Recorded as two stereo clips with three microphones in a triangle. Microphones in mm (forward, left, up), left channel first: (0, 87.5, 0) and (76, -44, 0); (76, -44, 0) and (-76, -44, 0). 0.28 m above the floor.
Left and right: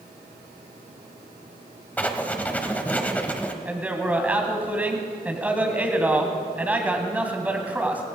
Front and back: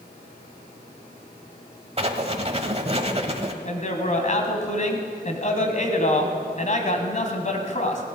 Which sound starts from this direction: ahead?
A man speaking, at 3.6 s.